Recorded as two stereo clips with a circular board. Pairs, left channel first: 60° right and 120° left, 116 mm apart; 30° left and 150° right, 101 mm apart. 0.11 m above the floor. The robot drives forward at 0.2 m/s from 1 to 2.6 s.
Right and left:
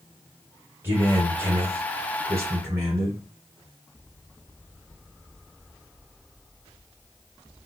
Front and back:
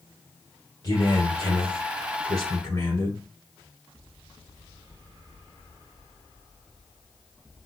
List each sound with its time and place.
0.8 s a man speaking: 60° left, 2 m; by 3.2 s 70° left, 2.0 m